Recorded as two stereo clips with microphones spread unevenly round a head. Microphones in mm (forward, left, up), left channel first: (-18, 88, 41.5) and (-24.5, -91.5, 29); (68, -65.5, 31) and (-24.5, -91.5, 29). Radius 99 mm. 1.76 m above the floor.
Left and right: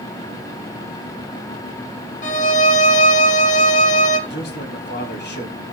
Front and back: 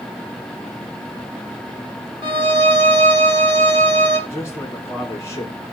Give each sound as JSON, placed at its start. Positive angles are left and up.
{"t": 2.2, "sound": "a violin", "azimuth_deg": 135, "distance_m": 1.3}
{"t": 4.3, "sound": "a man speaking", "azimuth_deg": 120, "distance_m": 3.5}